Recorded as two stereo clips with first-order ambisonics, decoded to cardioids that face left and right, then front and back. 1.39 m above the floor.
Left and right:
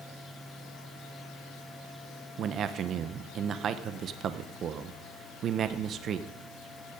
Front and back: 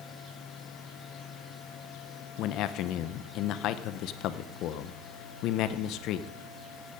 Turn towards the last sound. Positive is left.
turn(degrees=-35)